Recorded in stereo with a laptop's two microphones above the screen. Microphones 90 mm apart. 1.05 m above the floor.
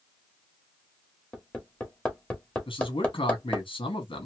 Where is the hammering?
15° left (ahead or behind), 1.2 m.